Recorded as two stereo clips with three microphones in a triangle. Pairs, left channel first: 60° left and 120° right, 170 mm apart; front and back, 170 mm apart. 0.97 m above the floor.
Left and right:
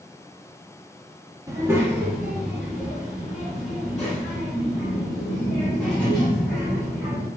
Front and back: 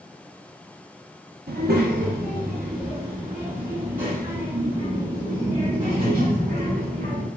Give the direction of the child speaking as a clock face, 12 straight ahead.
6 o'clock.